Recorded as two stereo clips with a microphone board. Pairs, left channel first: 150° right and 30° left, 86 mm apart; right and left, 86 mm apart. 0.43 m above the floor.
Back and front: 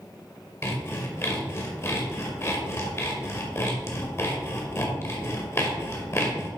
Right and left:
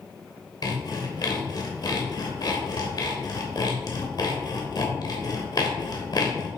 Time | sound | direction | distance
0.6 | sawing | 100° right | 1.9 m